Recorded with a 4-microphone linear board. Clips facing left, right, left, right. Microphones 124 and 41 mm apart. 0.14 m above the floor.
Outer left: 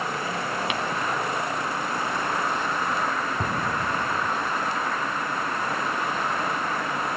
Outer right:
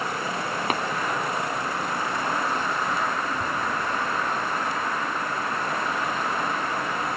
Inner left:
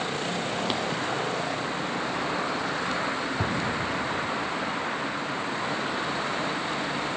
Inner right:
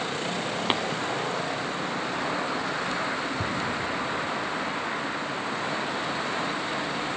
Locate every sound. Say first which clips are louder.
0.7 s tapping: outer right 7 dB, inner right 6 dB; 40° right (ahead or behind)
3.4 s an explosion: outer left 1 dB, inner left 1 dB; 75° left (ahead or behind)